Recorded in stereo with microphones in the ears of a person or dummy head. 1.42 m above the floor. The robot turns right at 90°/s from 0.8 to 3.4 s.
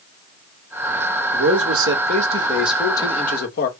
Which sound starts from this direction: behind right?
A man speaking, at 1.3 s.